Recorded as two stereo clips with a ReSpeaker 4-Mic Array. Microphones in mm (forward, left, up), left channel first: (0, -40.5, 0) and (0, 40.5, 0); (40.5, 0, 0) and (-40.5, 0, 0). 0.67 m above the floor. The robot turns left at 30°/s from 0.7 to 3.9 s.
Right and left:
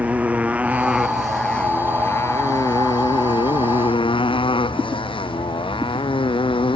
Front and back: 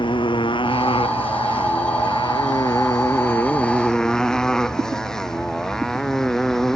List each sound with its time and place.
0.0 s a motorcycle: 15° left; by 6.8 s 85° right